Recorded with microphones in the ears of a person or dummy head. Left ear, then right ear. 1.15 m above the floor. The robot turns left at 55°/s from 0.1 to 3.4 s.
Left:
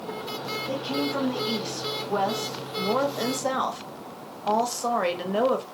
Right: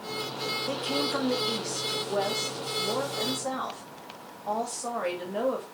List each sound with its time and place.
0.7 s a woman speaking: 120° right, 0.8 m; by 5.6 s 90° left, 0.8 m